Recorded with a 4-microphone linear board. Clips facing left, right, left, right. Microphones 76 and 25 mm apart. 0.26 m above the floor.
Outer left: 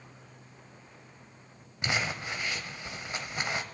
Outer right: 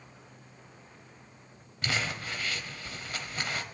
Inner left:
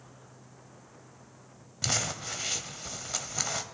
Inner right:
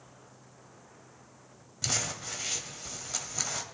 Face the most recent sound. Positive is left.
turn(degrees=20)  # may be behind; listen again after turning